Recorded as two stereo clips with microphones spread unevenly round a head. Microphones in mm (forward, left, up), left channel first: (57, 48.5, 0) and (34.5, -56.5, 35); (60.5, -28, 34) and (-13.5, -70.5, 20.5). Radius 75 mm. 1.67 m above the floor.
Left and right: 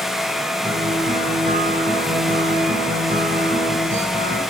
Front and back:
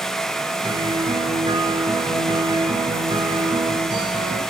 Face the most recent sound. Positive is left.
turn(degrees=-115)